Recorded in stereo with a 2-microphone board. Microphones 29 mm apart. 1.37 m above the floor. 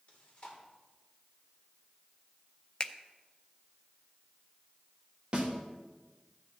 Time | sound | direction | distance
0.1 | chewing | 40° left (ahead or behind) | 3 m
2.8 | a finger snap | 35° left (ahead or behind) | 0.6 m
5.3 | a snare drum | 30° right (ahead or behind) | 2.5 m